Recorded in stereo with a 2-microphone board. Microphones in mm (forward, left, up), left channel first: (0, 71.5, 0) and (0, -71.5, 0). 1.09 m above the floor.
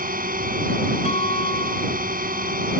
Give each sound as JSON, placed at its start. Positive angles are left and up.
{"t": 0.0, "sound": "a drone", "side_deg": -80}
{"t": 1.1, "sound": "a guitar", "side_deg": 45}